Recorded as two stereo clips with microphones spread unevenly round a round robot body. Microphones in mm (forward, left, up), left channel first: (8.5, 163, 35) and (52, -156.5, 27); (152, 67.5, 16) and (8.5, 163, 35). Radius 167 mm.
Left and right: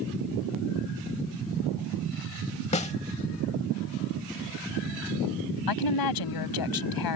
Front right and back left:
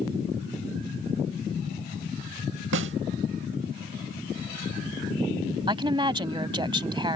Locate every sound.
2.7 s a snare drum: 170° left
5.7 s a woman speaking: 85° left